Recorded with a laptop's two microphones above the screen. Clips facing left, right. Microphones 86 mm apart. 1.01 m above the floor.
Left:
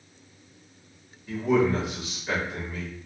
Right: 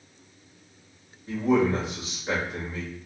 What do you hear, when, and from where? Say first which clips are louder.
1.3 s a man speaking: even; 30° right (ahead or behind), 1.9 m